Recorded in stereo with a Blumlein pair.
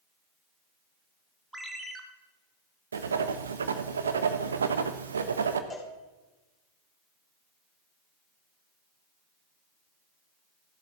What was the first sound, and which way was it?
A ringtone, 10° right.